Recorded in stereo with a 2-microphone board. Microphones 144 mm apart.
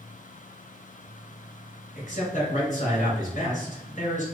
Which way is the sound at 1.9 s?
55° left (ahead or behind).